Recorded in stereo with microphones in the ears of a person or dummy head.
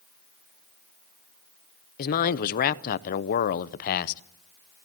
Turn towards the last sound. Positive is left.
turn(degrees=50)  # may be behind; listen again after turning